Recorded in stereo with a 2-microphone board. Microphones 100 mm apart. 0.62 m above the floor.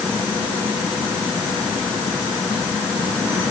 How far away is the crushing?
No crushing in this recording.